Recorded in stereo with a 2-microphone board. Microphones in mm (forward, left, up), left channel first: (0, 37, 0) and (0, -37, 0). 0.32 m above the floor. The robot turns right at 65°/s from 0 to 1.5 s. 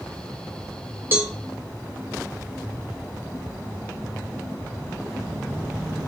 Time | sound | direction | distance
1.1 | a cowbell | 25° right (ahead or behind) | 1.0 m